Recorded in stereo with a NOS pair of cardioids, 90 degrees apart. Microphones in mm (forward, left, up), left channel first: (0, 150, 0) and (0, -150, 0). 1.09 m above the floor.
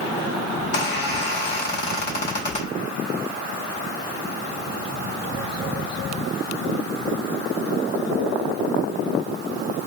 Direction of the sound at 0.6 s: 35° left.